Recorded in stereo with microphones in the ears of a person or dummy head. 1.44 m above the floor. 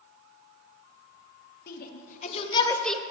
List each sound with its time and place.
1.7 s a shout: 55° left (ahead or behind), 1.7 m; by 3.0 s 5° right (ahead or behind), 1.0 m